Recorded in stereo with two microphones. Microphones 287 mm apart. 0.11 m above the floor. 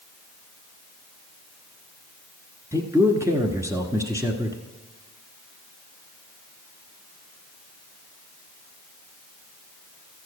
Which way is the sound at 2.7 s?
10° right (ahead or behind).